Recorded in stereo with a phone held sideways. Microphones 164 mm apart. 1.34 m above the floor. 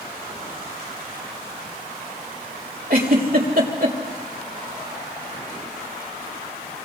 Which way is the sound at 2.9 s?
65° right (ahead or behind).